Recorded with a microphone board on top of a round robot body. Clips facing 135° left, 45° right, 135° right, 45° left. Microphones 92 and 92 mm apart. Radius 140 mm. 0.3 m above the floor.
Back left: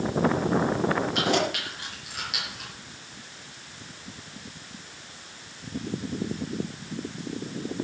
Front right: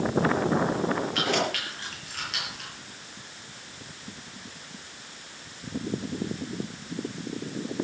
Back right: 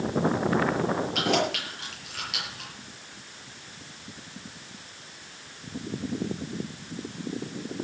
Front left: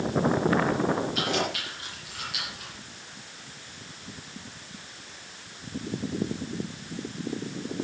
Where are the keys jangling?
155° right, 7.5 m; by 2.7 s 140° right, 8 m.